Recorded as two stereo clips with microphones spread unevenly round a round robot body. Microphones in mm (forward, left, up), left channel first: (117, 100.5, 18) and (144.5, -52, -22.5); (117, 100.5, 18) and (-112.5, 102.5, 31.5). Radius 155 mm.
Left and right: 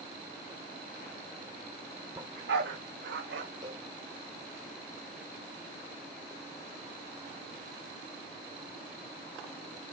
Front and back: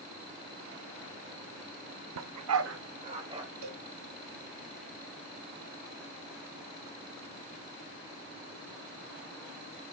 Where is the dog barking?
165° right, 0.5 m; by 3.5 s 105° right, 1.5 m.